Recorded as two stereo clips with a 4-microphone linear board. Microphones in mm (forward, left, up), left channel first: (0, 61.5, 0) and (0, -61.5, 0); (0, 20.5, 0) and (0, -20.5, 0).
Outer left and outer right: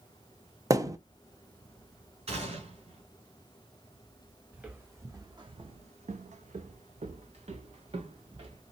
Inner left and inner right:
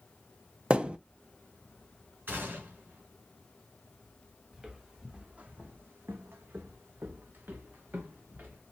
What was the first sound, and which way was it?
A thud, 30° right (ahead or behind).